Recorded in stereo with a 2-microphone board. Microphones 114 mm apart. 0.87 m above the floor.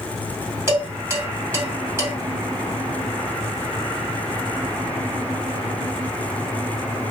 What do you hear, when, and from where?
0.7 s dishes clattering: 20° right (ahead or behind), 1.7 m